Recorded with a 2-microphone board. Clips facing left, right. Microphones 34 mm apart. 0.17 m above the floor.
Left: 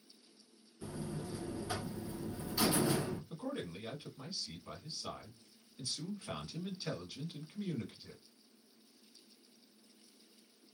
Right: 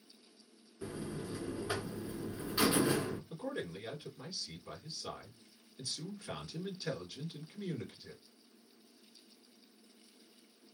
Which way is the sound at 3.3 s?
10° left (ahead or behind).